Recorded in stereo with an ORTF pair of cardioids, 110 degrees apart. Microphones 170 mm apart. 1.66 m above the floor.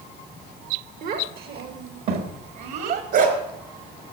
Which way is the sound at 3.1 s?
65° right.